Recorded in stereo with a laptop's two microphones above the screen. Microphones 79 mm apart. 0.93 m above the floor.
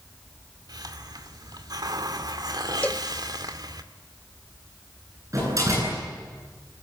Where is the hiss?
60° right (ahead or behind), 2.5 m.